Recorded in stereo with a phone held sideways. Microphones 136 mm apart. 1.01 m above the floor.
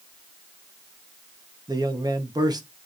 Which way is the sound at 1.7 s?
30° right (ahead or behind).